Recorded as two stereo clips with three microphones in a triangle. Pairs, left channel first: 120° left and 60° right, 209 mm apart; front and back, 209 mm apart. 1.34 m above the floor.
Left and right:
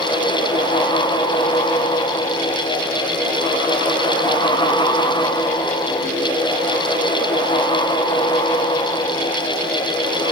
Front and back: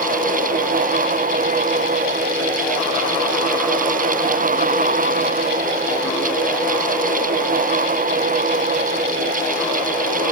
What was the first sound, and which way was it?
Only background noise.